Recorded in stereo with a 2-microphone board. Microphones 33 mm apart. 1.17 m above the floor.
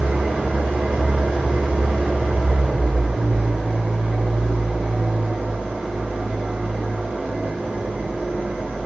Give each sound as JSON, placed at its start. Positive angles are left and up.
{"t": 0.0, "sound": "an engine running", "side_deg": -75, "distance_m": 1.1}